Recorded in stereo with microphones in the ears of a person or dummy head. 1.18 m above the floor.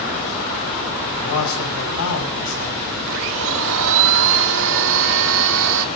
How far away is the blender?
About 1.7 m.